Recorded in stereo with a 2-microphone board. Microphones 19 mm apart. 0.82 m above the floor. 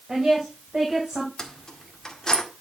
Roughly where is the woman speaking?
Right.